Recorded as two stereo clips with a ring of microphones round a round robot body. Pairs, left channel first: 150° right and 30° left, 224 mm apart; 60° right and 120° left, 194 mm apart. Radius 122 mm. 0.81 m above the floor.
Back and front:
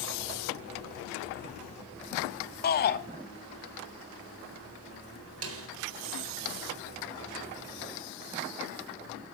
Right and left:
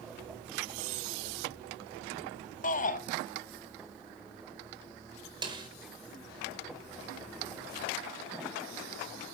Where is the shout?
110° right, 1.9 m.